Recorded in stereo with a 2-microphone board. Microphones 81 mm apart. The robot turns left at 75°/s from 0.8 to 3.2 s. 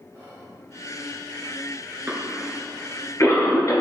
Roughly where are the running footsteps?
No running footsteps in this recording.